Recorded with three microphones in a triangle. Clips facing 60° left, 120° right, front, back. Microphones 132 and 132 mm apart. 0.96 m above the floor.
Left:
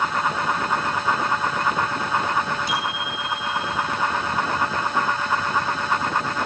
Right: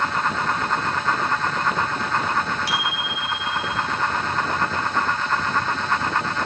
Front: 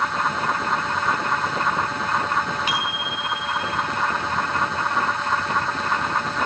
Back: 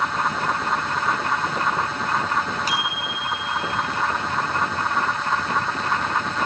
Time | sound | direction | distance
2.7 | a bicycle bell | 130° right | 7.5 m